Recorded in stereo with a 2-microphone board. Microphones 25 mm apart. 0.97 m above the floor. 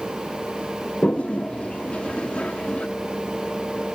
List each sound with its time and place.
1.0 s a toilet flushing: 50° left (ahead or behind), 0.6 m